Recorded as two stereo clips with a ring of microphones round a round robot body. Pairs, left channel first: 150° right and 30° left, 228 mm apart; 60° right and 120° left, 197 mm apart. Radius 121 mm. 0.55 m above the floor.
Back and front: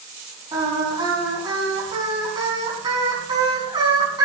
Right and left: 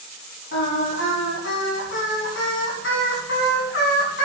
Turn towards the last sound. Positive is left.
turn(degrees=-40)